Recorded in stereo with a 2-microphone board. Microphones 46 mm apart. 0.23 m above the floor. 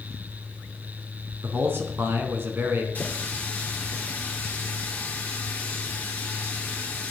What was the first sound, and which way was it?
A man speaking, 60° right (ahead or behind).